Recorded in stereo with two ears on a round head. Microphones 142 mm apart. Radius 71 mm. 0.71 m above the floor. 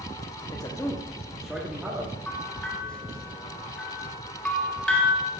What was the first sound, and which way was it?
A man speaking, 30° left (ahead or behind).